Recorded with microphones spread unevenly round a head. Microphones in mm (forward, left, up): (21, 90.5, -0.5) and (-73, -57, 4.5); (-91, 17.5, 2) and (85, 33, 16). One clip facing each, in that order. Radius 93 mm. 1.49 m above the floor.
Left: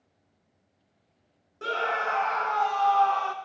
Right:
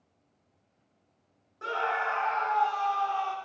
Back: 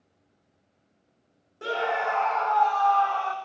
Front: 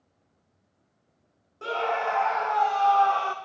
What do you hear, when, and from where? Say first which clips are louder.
1.6 s a scream: left 2 dB, even; 110° left, 0.9 m; by 3.3 s 40° left, 0.8 m